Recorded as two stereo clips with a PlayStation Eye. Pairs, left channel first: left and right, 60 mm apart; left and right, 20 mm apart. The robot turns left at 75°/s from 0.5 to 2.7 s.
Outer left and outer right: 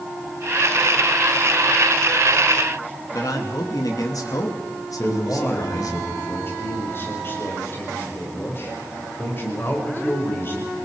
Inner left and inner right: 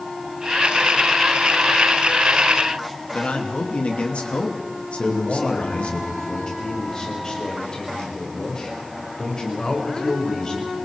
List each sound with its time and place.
3.1 s a man speaking: 75° left (ahead or behind), 3 m
5.0 s a man speaking: 40° left (ahead or behind), 6.5 m